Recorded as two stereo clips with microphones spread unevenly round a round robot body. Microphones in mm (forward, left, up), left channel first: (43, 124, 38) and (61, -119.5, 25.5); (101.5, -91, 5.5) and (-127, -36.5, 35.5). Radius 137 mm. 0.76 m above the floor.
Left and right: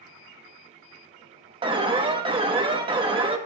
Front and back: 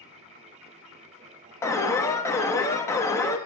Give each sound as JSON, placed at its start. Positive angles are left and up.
{"t": 1.6, "sound": "an alarm", "azimuth_deg": -60, "distance_m": 1.1}